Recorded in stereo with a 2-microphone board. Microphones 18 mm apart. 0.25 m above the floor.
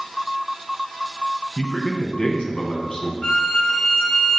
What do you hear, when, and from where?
1.6 s a man speaking: 55° left (ahead or behind), 1.9 m
3.2 s a violin: 60° left (ahead or behind), 1.8 m